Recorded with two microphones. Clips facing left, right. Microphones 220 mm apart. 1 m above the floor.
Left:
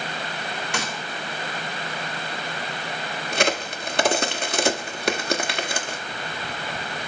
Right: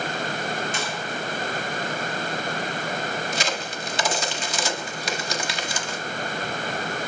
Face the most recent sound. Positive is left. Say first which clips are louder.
# left 4 dB
turn(degrees=60)  # may be behind; listen again after turning